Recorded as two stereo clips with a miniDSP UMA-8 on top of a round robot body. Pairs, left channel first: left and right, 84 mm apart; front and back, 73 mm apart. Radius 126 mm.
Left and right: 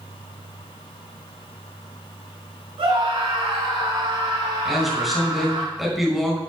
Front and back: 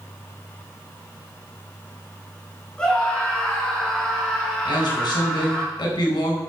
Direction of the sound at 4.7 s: Straight ahead.